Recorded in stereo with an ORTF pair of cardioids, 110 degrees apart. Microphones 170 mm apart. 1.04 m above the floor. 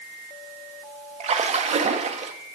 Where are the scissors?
No scissors in this recording.